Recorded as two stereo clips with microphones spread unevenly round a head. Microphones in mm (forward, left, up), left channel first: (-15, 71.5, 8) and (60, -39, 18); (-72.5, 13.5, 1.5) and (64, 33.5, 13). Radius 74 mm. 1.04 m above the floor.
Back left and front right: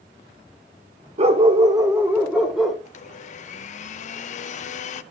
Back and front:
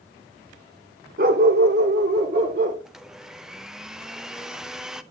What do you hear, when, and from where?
1.2 s a dog barking: 15° right, 1.2 m; by 2.8 s 35° left, 1.8 m
2.9 s a blender: 95° left, 0.6 m